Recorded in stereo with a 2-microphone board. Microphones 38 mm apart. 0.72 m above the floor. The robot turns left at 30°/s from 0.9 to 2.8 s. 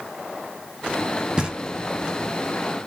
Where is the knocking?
20° right (ahead or behind), 1.1 m; by 1.6 s 25° right (ahead or behind), 1.1 m.